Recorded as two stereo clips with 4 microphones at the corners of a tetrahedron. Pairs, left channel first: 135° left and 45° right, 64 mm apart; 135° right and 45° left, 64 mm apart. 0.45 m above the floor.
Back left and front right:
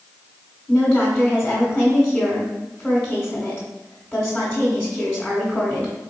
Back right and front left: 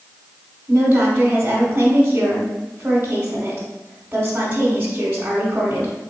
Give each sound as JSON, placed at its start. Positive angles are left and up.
{"t": 0.7, "sound": "a woman speaking", "azimuth_deg": 75, "distance_m": 1.0}